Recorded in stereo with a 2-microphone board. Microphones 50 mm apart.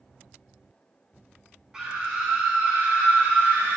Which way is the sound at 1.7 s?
15° right (ahead or behind).